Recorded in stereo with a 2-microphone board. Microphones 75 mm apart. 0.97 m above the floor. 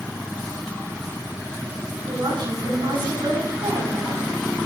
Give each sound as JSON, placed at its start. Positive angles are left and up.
{"t": 2.0, "sound": "a woman speaking", "side_deg": -80, "distance_m": 9.0}